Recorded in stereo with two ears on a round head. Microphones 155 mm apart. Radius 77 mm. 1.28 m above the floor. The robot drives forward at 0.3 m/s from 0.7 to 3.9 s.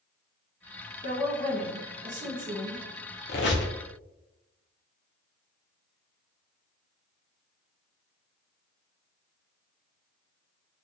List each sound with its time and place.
1.0 s a woman speaking: 40° right (ahead or behind), 1.3 m; by 2.8 s 55° right (ahead or behind), 1.0 m
3.3 s a squeak: 65° left (ahead or behind), 0.5 m; by 3.7 s 70° left (ahead or behind), 0.5 m